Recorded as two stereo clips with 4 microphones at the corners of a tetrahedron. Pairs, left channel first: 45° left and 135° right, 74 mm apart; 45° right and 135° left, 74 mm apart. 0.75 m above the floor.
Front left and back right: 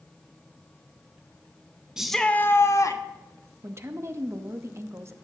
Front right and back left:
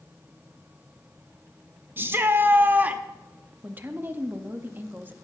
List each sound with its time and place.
2.0 s a shout: 155° left, 0.7 m; by 3.0 s 70° left, 1.1 m
3.6 s a woman speaking: 170° right, 0.8 m